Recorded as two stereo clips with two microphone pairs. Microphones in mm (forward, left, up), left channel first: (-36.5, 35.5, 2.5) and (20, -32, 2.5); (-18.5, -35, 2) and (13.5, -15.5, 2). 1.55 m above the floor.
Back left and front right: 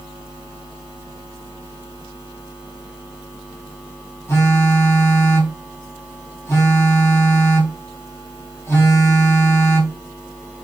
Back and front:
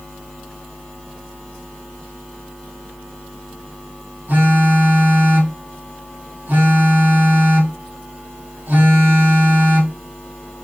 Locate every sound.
4.3 s a phone buzzing: 70° left, 4.5 m